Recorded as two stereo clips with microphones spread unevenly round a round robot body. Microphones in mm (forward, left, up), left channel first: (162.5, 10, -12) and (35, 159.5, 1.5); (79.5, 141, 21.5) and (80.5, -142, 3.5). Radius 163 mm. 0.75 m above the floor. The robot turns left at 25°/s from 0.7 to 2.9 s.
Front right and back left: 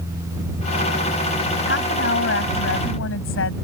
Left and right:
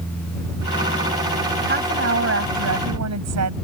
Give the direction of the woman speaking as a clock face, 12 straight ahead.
1 o'clock.